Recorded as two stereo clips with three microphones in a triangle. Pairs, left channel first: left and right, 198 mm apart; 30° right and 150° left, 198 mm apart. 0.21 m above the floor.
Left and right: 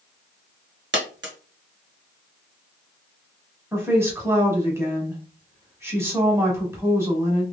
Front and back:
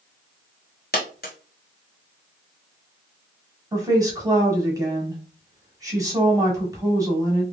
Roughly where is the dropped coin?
Right.